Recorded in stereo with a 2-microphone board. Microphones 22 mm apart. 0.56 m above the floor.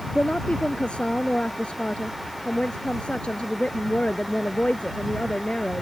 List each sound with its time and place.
0.1 s a woman speaking: 50° left (ahead or behind)